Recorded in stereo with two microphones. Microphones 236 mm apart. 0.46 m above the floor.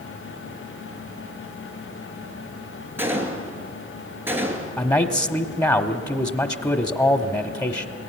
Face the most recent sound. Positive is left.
turn(degrees=15)  # may be behind; listen again after turning